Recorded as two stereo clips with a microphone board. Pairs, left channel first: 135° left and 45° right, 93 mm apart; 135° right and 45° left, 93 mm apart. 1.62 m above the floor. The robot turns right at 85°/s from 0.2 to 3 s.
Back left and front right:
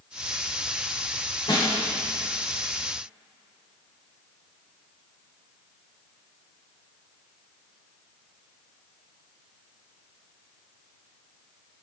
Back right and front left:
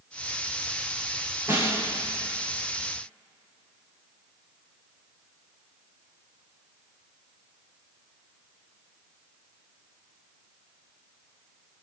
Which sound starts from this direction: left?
A snare drum, at 1.5 s.